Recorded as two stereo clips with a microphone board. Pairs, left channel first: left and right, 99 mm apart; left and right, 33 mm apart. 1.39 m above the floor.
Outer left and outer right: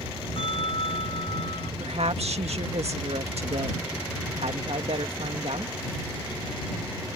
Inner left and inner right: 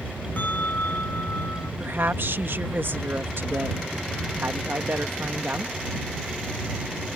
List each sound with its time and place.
0.4 s a bell: 65° left (ahead or behind)
1.8 s a woman speaking: 80° right